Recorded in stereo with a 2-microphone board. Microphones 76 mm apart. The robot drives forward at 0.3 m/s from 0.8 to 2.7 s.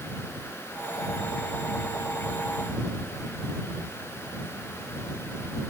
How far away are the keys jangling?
No keys jangling in this recording.